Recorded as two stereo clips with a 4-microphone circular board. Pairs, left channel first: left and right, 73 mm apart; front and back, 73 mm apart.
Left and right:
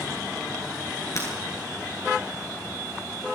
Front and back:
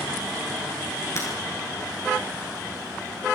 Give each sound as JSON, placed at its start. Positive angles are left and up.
{"t": 1.1, "sound": "breaking glass", "azimuth_deg": 50, "distance_m": 9.0}